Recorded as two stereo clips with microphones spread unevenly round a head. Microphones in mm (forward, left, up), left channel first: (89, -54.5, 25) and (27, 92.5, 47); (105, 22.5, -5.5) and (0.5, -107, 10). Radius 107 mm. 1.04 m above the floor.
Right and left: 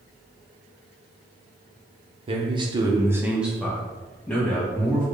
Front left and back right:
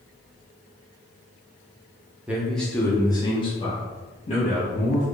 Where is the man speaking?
145° left, 0.6 m; by 5.0 s 5° left, 1.4 m.